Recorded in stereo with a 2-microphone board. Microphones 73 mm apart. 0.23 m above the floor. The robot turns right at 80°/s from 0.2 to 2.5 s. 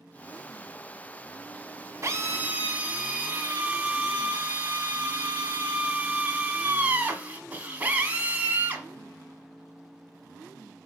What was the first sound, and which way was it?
A drill, 70° right.